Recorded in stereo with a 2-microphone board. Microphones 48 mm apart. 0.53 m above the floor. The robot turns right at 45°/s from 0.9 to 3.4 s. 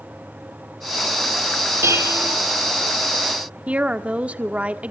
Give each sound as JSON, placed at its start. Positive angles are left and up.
{"t": 1.8, "sound": "dishes clattering", "side_deg": -70, "distance_m": 4.0}
{"t": 3.7, "sound": "a woman speaking", "side_deg": -30, "distance_m": 1.3}